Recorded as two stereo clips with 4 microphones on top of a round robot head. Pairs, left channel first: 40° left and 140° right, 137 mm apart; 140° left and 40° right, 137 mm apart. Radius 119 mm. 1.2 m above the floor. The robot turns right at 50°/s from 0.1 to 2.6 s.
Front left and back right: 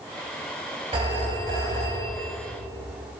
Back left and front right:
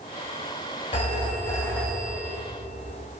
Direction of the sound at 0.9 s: 175° left.